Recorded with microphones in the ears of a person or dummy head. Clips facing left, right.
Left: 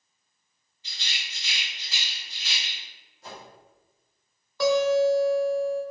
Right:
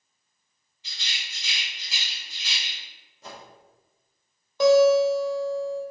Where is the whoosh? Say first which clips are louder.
Even; 60° right (ahead or behind), 1.4 m.